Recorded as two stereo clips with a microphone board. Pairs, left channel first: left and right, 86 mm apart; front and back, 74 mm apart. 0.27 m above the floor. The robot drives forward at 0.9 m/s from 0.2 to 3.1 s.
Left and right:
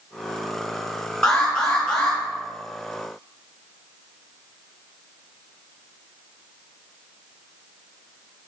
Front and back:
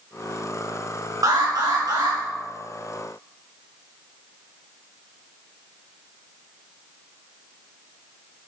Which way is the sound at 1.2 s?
170° left.